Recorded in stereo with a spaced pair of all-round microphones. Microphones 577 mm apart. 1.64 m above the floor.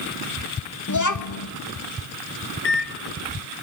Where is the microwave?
45° left (ahead or behind), 1.0 m.